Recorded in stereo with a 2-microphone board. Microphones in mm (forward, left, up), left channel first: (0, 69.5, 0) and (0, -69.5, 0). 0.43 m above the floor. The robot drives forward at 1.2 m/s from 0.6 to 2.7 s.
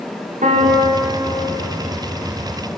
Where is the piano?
60° right (ahead or behind), 7 m; by 1.5 s 55° right (ahead or behind), 7.5 m.